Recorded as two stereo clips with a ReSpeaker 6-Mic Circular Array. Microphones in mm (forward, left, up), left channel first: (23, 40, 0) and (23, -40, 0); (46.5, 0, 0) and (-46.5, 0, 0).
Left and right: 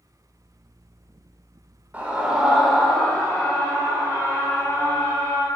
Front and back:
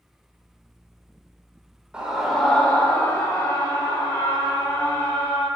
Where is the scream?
120° right, 0.8 m; by 5.5 s 35° left, 1.8 m.